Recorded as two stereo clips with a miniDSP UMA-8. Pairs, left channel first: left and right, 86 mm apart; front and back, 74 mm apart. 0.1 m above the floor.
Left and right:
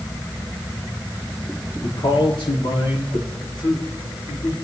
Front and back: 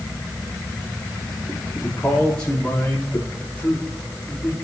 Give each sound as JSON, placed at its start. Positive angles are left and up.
{"t": 1.8, "sound": "a man speaking", "azimuth_deg": 75, "distance_m": 8.0}
{"t": 3.4, "sound": "a man speaking", "azimuth_deg": 70, "distance_m": 6.5}